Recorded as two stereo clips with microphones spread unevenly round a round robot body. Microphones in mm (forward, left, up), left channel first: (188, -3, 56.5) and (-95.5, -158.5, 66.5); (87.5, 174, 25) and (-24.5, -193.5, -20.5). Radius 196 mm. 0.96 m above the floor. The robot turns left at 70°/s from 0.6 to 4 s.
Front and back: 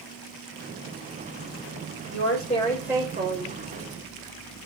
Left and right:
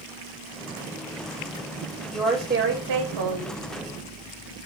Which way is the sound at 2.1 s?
15° right.